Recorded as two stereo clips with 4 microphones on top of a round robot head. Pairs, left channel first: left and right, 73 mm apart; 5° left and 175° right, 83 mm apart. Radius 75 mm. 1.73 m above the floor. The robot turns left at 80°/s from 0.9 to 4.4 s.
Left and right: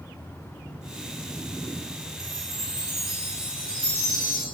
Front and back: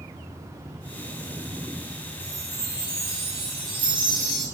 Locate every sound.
2.2 s a chime: 55° right, 3.5 m; by 4.5 s 125° left, 3.5 m